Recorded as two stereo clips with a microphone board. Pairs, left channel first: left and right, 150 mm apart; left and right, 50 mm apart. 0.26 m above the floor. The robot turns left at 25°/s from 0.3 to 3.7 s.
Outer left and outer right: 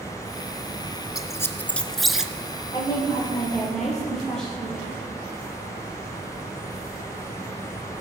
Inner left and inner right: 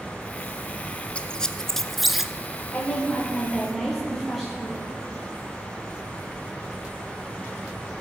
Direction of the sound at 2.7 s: 30° left (ahead or behind).